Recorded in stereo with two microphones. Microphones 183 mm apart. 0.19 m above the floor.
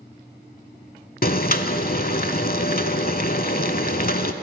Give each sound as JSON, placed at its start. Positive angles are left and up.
{"t": 1.2, "sound": "boiling", "side_deg": 55, "distance_m": 0.5}